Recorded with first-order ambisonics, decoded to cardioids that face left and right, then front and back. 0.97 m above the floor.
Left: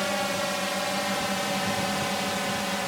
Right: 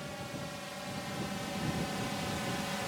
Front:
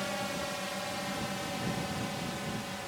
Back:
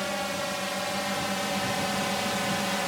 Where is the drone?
110° left; by 2.9 s 145° left.